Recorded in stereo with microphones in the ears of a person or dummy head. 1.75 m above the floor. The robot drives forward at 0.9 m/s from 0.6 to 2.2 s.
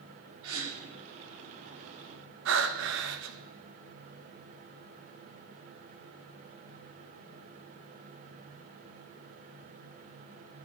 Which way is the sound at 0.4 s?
80° right.